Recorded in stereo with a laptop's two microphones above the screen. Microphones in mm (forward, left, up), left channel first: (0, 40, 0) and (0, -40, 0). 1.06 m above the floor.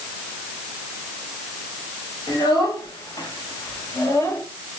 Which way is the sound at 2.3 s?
65° left (ahead or behind).